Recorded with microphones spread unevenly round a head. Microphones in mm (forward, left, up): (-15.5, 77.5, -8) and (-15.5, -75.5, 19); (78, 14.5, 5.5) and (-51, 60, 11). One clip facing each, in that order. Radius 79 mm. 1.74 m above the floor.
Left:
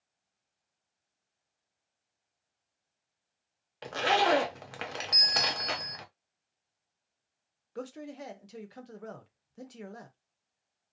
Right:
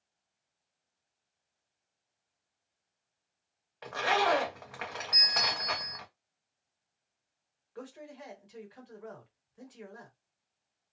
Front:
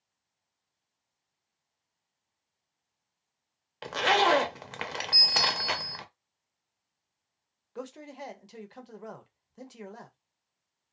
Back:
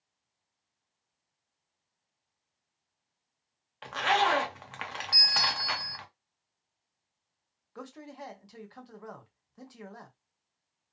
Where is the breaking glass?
I don't hear breaking glass.